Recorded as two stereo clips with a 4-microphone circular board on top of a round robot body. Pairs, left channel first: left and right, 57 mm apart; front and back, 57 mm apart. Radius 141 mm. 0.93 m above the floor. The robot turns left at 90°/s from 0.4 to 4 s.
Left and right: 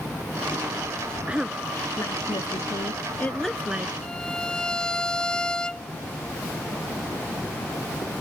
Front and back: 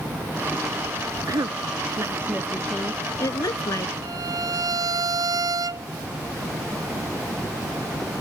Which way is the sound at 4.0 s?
170° left.